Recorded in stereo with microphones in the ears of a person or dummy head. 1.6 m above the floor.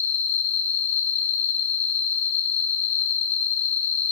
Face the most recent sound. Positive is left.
turn(degrees=60)  # may be behind; listen again after turning